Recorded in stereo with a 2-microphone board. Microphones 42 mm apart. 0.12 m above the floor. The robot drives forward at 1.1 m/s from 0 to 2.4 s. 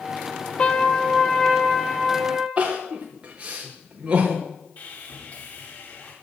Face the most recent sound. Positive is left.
turn(degrees=55)  # may be behind; listen again after turning